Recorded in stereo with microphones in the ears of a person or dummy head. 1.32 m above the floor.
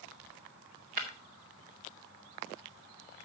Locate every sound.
1.0 s breaking glass: 55° right (ahead or behind), 2 m